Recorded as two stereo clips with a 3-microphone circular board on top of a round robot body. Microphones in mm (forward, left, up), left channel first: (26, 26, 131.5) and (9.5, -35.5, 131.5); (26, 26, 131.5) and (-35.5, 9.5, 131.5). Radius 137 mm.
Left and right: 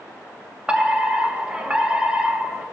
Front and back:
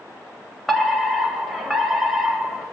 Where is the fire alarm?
80° right, 1.5 m.